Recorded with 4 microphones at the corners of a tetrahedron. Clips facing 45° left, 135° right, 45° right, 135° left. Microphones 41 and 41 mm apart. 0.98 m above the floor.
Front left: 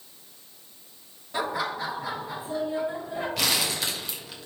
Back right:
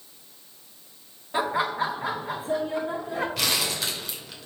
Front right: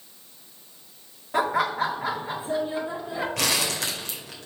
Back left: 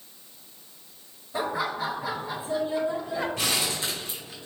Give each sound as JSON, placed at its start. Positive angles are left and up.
{"t": 1.3, "sound": "laughter", "azimuth_deg": -65, "distance_m": 1.8}
{"t": 3.4, "sound": "crumpling", "azimuth_deg": -45, "distance_m": 2.0}